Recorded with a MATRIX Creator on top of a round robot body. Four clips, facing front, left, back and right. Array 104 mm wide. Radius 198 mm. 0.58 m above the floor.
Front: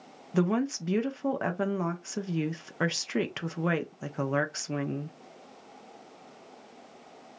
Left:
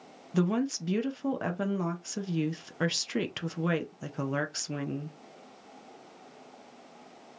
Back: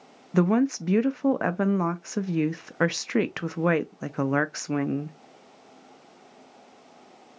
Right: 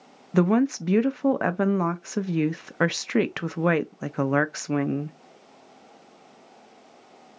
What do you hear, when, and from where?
0.3 s a woman speaking: 120° right, 0.6 m